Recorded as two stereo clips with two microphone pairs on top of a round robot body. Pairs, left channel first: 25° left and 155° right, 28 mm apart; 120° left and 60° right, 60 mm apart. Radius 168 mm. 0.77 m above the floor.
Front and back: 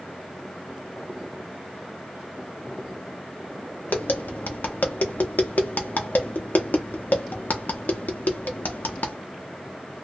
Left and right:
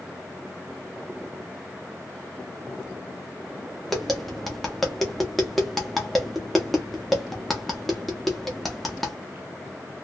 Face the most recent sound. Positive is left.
turn(degrees=30)